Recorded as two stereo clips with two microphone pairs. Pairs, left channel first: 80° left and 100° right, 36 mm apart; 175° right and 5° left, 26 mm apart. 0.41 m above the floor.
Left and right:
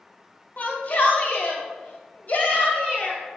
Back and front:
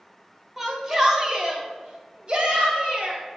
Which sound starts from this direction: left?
A shout, at 0.6 s.